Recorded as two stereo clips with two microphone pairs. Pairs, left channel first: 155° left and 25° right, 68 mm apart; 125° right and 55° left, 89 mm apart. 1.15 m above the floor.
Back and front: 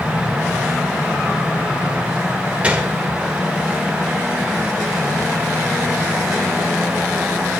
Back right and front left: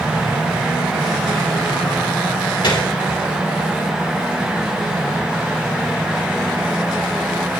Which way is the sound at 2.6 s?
95° right.